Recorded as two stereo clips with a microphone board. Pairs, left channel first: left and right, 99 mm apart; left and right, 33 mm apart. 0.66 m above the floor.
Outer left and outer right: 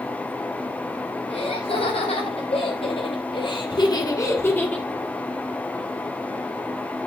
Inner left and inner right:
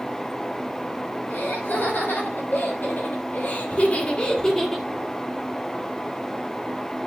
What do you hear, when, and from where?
1.3 s laughter: 80° left, 5 m; by 4.9 s 5° left (ahead or behind), 2.0 m